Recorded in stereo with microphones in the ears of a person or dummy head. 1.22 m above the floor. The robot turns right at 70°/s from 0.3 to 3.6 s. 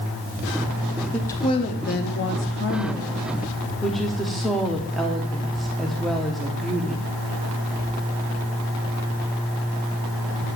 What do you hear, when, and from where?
1.1 s a woman speaking: 5° left, 0.7 m; by 7.1 s straight behind, 0.7 m